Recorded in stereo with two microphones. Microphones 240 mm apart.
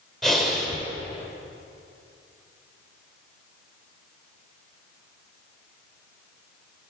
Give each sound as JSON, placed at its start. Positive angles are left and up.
{"t": 0.2, "sound": "breathing", "side_deg": 0, "distance_m": 1.3}